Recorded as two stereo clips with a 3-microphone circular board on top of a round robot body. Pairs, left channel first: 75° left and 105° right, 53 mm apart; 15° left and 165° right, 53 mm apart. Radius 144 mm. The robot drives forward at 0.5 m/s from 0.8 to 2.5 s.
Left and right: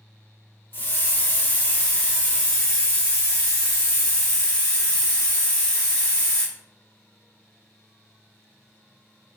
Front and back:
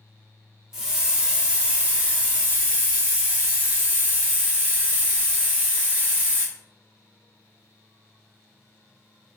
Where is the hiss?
115° left, 1.5 m; by 6.5 s 140° left, 1.9 m.